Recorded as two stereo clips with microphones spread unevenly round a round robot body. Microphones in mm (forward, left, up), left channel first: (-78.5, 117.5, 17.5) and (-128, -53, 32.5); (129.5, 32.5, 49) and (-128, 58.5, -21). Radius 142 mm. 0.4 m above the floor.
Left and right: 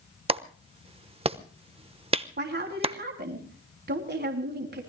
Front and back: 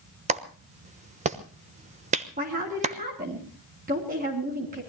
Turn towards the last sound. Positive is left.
turn(degrees=-130)